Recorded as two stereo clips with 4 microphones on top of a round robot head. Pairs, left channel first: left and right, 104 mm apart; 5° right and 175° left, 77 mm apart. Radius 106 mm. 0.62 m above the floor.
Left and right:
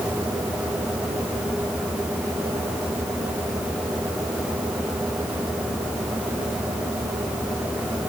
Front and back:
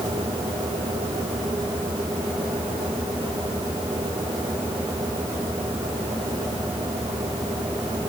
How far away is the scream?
I don't hear a scream.